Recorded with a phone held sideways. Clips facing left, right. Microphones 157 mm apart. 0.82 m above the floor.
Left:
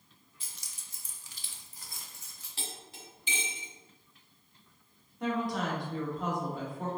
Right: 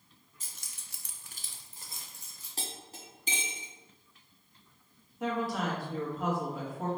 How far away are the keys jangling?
About 0.8 m.